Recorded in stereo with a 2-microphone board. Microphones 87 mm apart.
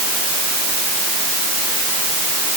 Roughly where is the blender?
No blender in this recording.